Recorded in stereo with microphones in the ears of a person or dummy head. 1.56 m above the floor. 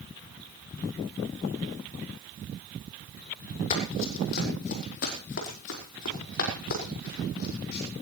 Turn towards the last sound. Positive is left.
turn(degrees=65)  # may be behind; listen again after turning